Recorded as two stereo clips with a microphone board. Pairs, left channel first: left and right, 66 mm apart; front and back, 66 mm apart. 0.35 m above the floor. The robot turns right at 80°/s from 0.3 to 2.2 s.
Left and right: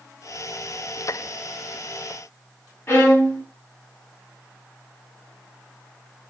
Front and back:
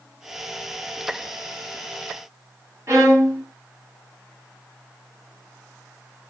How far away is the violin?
About 1.4 m.